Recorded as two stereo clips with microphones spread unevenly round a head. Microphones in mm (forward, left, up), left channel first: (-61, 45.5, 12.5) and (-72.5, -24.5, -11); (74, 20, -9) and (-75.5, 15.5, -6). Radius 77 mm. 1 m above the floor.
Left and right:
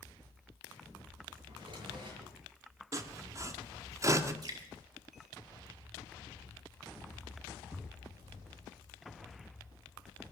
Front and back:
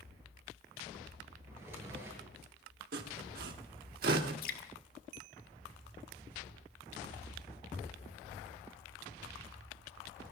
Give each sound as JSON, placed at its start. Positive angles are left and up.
{"t": 1.5, "sound": "a drawer", "azimuth_deg": -105, "distance_m": 6.5}
{"t": 2.9, "sound": "sawing", "azimuth_deg": -145, "distance_m": 1.6}
{"t": 4.4, "sound": "dripping", "azimuth_deg": -35, "distance_m": 1.5}